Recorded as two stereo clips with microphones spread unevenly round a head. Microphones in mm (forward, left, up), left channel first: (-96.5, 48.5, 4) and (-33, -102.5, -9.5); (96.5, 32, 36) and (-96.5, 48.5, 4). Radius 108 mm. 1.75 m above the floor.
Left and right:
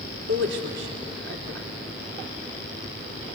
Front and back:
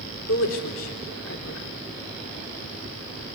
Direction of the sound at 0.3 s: 35° right.